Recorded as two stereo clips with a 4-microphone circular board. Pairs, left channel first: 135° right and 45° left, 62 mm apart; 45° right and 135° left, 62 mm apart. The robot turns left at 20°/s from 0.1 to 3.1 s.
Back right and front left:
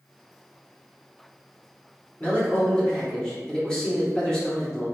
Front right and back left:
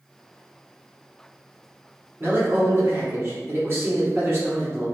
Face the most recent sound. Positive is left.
turn(degrees=150)